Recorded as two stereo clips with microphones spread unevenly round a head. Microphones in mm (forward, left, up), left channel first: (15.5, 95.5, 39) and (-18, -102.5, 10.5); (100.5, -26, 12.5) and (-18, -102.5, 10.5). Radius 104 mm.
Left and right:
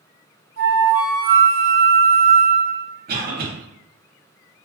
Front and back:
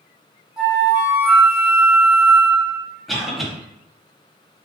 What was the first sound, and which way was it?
A flute, 60° right.